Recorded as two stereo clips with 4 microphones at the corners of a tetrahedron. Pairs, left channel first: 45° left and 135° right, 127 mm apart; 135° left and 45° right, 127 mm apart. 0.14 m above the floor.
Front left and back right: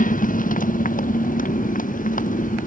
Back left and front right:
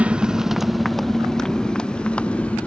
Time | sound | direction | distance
0.0 | a motorcycle | 35° left | ?